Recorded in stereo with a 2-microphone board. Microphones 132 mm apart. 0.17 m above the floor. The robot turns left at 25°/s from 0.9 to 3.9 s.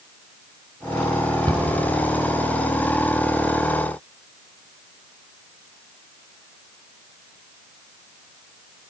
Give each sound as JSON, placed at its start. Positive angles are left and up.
{"t": 1.5, "sound": "a cupboard door", "side_deg": -35, "distance_m": 1.9}